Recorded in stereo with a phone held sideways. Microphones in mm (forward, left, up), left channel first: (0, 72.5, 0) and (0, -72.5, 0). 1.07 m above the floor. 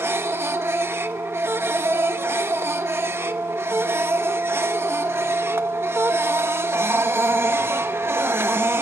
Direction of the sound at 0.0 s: 15° right (ahead or behind).